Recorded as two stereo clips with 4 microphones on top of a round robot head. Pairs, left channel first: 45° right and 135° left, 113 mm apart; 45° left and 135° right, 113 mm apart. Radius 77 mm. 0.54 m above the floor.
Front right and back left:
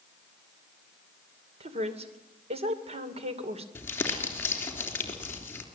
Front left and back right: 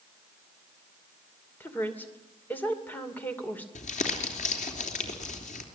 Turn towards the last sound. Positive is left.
turn(degrees=25)